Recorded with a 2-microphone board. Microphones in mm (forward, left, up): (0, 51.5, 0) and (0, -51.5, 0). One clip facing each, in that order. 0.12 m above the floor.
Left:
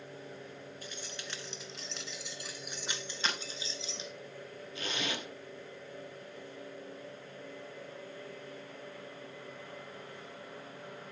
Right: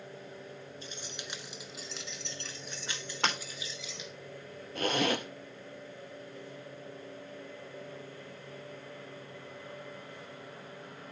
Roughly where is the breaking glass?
Right.